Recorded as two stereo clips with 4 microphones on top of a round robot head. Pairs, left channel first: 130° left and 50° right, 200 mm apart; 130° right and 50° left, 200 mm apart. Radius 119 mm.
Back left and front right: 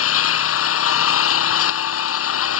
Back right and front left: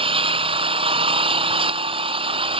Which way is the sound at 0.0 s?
115° left.